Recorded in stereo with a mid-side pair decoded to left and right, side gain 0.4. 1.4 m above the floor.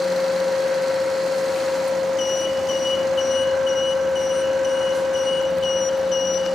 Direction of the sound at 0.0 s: 70° left.